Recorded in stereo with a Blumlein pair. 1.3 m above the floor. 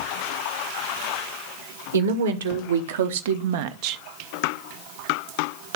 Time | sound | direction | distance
1.9 | a woman speaking | 65° right | 1.4 m